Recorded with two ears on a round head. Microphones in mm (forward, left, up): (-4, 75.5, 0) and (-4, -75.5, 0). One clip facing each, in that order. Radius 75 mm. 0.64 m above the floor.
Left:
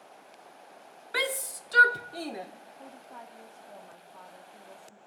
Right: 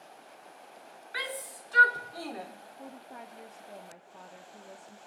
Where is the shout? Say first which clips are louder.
Left 7 dB; 60° left (ahead or behind), 1.2 m; by 2.5 s 20° left (ahead or behind), 1.4 m.